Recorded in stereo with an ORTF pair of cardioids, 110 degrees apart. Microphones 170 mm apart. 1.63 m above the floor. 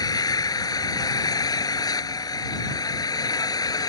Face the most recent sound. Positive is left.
turn(degrees=25)